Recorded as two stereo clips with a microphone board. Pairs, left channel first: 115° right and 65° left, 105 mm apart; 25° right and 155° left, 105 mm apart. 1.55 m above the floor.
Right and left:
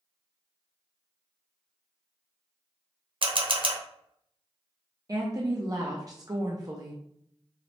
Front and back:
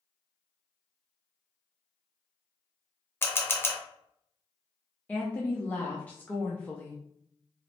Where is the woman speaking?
45° left, 0.5 m.